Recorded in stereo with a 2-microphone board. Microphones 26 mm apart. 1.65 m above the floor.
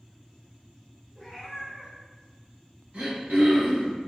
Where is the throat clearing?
75° right (ahead or behind), 1.4 m.